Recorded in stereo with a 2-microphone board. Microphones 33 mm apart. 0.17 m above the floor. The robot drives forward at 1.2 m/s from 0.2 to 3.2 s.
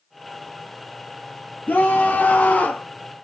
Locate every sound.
1.7 s a scream: 65° left (ahead or behind), 2.5 m; by 2.9 s 50° left (ahead or behind), 3 m